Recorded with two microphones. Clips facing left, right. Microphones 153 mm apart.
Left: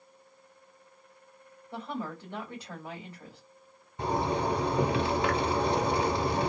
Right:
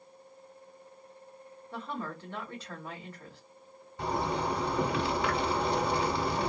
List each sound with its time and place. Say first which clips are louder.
1.7 s a woman speaking: left 2 dB; 15° left (ahead or behind), 1.7 m
4.0 s a zipper: left 3 dB; 20° left (ahead or behind), 1.3 m